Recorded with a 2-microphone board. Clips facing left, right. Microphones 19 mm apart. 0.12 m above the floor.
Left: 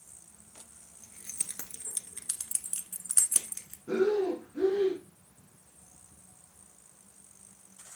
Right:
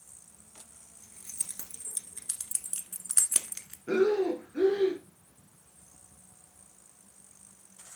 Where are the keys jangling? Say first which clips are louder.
Left 1 dB; 30° left (ahead or behind), 1.3 m; by 3.8 s 30° right (ahead or behind), 0.8 m.